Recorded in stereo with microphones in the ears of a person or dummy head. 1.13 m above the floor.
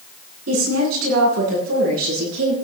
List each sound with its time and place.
0.5 s a woman speaking: 85° right, 9.5 m; by 2.5 s 80° right, 10.5 m